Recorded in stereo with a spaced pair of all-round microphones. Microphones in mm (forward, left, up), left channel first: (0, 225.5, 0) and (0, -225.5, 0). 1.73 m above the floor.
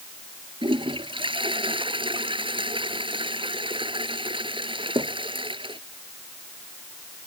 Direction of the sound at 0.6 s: 10° right (ahead or behind).